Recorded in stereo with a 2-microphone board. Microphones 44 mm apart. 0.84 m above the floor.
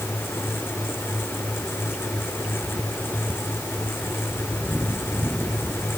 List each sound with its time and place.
Only background noise.